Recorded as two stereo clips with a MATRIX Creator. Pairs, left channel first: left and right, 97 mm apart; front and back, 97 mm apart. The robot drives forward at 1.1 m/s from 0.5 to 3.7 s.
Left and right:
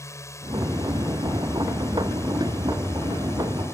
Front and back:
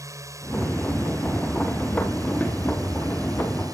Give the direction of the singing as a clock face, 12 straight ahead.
I don't hear singing.